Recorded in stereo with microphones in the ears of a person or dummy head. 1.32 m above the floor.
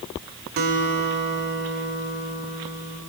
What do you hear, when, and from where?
0.6 s a guitar: 45° right (ahead or behind), 2 m